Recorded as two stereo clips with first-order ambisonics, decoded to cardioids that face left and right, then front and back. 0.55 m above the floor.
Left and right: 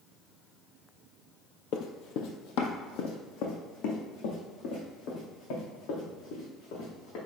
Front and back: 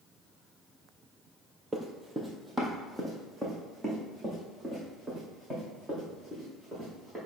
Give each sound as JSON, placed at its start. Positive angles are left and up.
{"t": 1.7, "sound": "running footsteps", "azimuth_deg": 105, "distance_m": 0.8}